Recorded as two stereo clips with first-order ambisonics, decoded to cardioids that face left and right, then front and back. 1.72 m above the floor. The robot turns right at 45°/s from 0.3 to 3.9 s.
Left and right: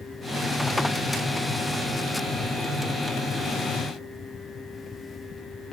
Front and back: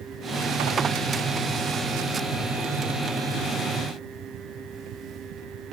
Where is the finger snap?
I don't hear a finger snap.